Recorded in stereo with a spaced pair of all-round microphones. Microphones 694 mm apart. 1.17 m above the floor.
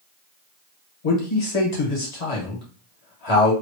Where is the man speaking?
70° left (ahead or behind), 1.3 m.